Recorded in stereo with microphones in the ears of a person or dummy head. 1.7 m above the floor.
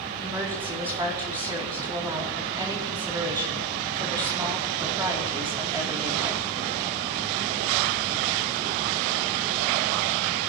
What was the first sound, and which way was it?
A woman speaking, 15° right (ahead or behind).